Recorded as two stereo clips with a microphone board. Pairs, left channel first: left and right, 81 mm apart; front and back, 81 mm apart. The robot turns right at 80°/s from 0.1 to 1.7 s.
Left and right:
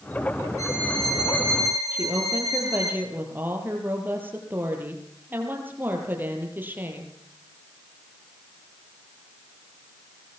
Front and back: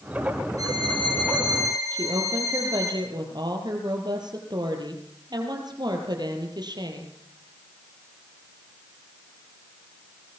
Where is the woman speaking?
155° right, 5.5 m.